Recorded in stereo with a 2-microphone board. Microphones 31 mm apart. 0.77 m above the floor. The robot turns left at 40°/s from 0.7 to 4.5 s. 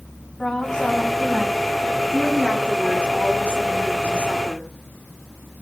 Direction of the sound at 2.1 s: 25° right.